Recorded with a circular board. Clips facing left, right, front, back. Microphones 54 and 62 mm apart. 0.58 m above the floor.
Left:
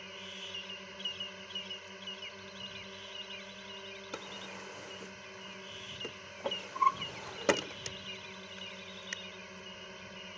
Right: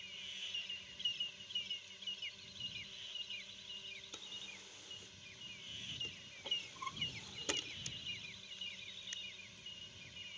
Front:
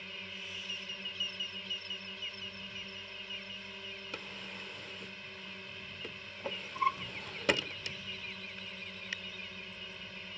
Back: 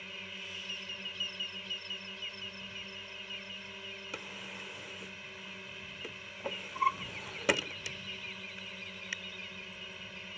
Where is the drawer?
95° left.